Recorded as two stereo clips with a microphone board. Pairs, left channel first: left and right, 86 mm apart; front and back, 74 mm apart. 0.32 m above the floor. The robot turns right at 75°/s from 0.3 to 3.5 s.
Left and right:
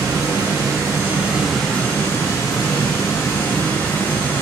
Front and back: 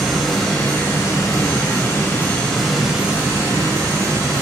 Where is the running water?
90° right, 1.2 m; by 4.4 s 150° left, 1.2 m.